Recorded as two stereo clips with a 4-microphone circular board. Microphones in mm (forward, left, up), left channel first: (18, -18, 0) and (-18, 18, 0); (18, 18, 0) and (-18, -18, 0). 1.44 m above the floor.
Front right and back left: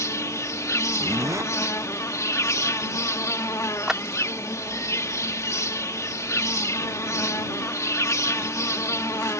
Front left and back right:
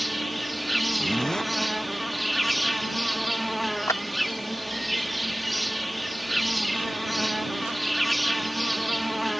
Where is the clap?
55° left.